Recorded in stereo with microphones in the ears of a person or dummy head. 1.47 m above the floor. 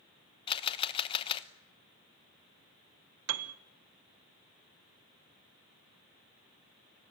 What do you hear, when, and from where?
0.5 s a camera shutter: 25° left (ahead or behind), 0.9 m
3.3 s a piano: 85° right, 1.1 m